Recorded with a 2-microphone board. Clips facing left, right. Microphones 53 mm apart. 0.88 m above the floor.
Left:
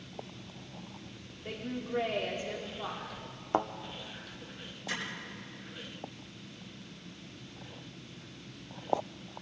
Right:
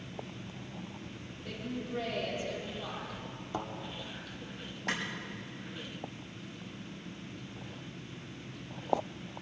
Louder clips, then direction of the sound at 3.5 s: Left 8 dB; 45° left (ahead or behind).